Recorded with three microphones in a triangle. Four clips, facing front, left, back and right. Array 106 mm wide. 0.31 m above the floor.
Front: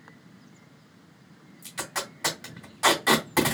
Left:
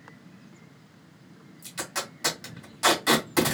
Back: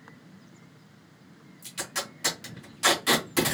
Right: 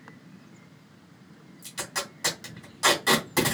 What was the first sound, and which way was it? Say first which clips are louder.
Tape being pulled: even, front 2 dB; 5° right.